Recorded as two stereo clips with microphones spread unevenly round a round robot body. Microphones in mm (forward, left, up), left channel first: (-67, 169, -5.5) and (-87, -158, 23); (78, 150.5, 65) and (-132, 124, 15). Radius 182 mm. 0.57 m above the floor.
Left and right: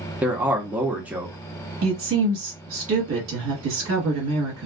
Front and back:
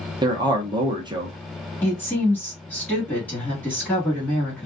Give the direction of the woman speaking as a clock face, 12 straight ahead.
3 o'clock.